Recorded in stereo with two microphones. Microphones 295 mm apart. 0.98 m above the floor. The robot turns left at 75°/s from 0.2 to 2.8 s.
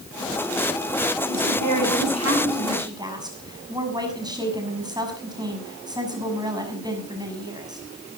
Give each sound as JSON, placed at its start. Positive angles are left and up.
{"t": 1.3, "sound": "a woman speaking", "azimuth_deg": -55, "distance_m": 6.5}